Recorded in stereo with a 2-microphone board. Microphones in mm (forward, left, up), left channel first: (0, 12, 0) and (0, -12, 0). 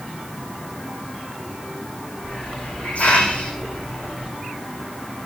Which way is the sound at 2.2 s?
70° left (ahead or behind).